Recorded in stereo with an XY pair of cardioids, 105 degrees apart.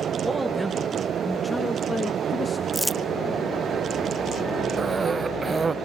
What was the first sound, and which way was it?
A man speaking, 10° right.